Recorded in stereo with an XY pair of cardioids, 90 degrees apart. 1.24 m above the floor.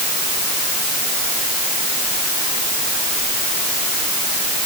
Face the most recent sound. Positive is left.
No sound to turn to.